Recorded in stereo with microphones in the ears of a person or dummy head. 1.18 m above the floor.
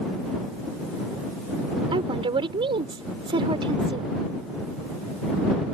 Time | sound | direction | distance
1.9 | a woman speaking | 30° right (ahead or behind) | ?